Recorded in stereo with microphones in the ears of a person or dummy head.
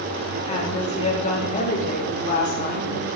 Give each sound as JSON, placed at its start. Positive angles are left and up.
{"t": 0.5, "sound": "a woman speaking", "side_deg": 30, "distance_m": 4.0}